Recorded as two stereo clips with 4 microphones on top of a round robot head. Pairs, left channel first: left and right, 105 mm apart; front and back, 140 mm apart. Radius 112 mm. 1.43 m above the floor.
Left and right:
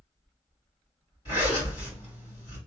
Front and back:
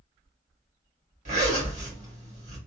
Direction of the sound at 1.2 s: 150° left.